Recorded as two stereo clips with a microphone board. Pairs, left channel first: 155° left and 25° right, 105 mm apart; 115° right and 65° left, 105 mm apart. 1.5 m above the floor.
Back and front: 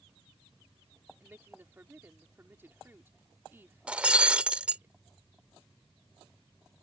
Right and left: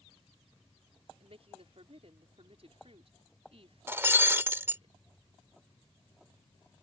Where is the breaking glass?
40° left.